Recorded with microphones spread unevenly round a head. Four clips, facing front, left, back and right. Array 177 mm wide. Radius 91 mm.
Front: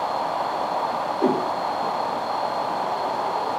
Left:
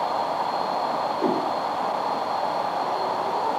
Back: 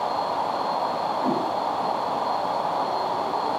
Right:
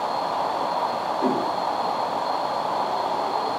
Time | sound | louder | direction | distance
1.2 | a whoosh | right 1 dB, front 5 dB | 10° left | 4.5 m